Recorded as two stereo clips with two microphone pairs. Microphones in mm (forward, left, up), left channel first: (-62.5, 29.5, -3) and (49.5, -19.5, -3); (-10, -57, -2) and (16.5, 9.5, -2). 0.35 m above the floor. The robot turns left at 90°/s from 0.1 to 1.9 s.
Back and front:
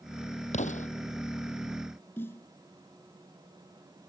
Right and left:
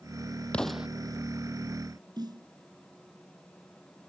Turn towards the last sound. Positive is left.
turn(degrees=85)